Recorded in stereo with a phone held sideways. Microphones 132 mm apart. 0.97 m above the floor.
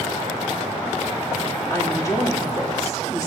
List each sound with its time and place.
1.7 s a woman speaking: 25° left (ahead or behind), 1.9 m